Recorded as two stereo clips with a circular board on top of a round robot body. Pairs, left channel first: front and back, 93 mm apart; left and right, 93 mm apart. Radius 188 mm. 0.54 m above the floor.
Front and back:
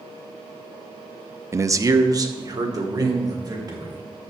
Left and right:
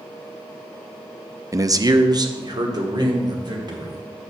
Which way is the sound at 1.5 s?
130° right.